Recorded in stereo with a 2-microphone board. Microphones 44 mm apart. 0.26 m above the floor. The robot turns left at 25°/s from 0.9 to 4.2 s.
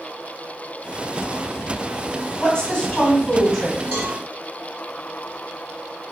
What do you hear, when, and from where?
2.4 s a woman speaking: 30° left, 1.9 m; by 3.8 s 5° right, 1.9 m
3.9 s a cowbell: 50° right (ahead or behind), 1.7 m; by 4.2 s 45° right (ahead or behind), 1.7 m